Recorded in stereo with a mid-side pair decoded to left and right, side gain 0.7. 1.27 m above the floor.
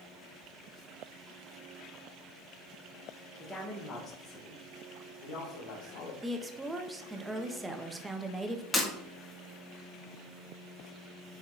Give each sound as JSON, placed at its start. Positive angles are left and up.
{"t": 3.4, "sound": "a woman speaking", "azimuth_deg": 15, "distance_m": 1.2}
{"t": 6.2, "sound": "a woman speaking", "azimuth_deg": -10, "distance_m": 0.7}
{"t": 8.7, "sound": "breaking glass", "azimuth_deg": 15, "distance_m": 1.5}